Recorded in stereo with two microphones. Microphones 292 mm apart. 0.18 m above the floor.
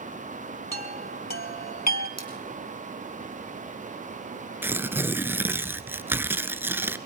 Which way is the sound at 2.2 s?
60° right (ahead or behind).